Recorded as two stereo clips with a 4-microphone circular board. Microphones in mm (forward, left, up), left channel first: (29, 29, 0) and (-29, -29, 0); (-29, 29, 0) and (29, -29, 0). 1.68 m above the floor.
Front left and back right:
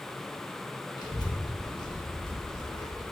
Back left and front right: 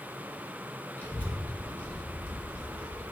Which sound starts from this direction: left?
A child speaking, at 1.0 s.